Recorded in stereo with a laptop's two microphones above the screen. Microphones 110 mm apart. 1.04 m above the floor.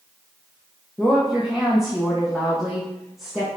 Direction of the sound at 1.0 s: 5° right (ahead or behind).